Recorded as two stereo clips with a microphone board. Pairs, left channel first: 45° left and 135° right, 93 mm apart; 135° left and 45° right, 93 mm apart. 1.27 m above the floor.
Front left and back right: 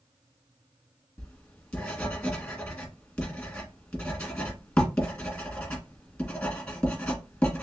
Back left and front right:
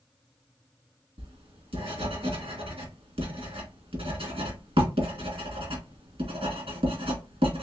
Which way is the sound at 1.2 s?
35° right.